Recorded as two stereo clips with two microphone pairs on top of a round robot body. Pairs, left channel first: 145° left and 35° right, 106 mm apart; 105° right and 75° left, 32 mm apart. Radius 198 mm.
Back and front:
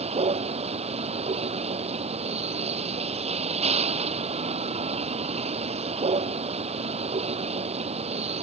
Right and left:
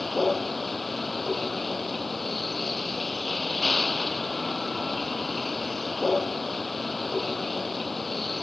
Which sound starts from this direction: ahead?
A vehicle, at 0.0 s.